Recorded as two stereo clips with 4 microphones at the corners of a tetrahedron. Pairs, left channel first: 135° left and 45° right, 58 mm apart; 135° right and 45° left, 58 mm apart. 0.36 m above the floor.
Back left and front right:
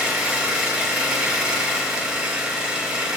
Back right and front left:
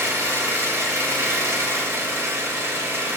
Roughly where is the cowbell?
I don't hear a cowbell.